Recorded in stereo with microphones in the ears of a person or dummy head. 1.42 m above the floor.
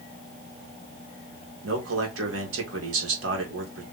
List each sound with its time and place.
1.6 s a man speaking: 70° right (ahead or behind), 2 m